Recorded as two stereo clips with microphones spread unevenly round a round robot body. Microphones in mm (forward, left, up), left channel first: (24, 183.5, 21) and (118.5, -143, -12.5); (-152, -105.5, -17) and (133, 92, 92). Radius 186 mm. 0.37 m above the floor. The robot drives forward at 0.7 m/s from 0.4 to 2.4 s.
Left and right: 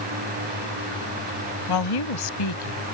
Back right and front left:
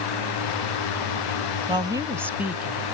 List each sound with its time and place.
1.7 s a woman speaking: 120° left; by 2.8 s 130° left